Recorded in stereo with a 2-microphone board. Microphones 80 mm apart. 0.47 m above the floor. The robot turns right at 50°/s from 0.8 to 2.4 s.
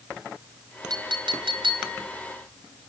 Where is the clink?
115° right, 4 m; by 2.0 s 65° right, 4 m.